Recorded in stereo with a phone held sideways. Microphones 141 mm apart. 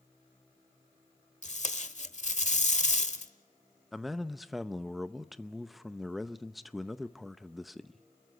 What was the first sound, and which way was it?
Tape being pulled, 55° left (ahead or behind).